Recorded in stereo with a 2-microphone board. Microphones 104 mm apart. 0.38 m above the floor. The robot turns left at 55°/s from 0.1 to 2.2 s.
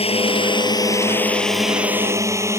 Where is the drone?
70° left (ahead or behind); by 2.6 s 25° right (ahead or behind).